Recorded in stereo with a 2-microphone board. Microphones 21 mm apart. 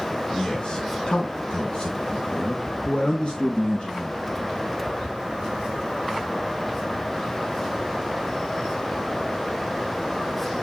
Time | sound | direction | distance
0.3 | a man speaking | 40° left (ahead or behind) | 1.7 m